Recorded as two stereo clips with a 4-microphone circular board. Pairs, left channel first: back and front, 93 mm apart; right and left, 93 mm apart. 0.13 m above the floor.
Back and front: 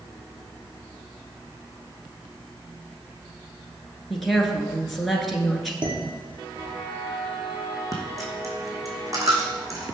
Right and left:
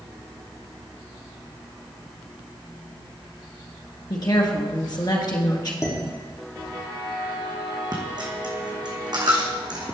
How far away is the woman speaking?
About 1.9 m.